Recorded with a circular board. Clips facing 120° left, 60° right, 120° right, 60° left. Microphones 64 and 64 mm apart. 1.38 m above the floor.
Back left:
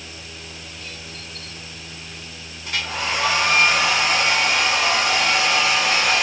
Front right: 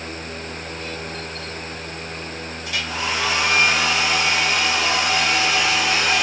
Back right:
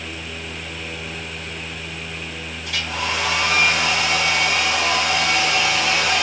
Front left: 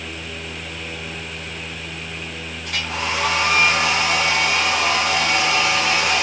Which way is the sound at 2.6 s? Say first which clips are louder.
Back left 1 dB, even; 85° left.